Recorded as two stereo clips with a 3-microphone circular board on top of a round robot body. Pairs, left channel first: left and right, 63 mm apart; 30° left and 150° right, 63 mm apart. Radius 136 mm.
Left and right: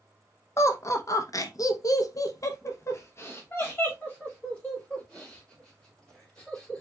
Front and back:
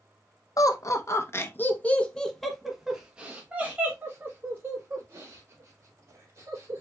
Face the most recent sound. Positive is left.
turn(degrees=160)